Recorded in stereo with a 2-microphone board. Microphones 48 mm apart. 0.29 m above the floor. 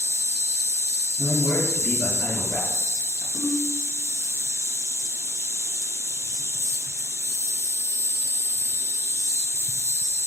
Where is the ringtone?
20° right (ahead or behind), 2.0 m.